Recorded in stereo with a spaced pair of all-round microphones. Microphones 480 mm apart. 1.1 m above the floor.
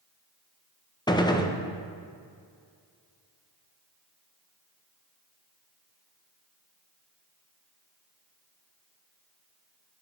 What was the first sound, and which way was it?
A gunshot, 10° left (ahead or behind).